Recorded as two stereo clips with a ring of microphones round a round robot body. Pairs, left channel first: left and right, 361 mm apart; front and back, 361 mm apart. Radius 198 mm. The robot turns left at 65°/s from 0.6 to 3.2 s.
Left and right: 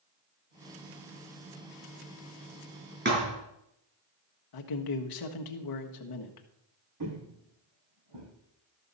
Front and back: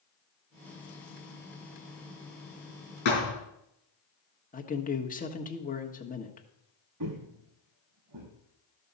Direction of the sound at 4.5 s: 70° left.